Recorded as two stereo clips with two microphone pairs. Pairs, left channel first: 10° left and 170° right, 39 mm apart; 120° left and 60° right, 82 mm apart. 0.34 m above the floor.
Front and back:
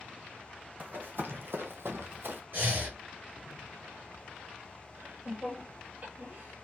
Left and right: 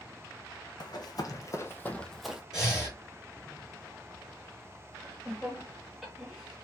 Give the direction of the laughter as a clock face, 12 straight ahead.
5 o'clock.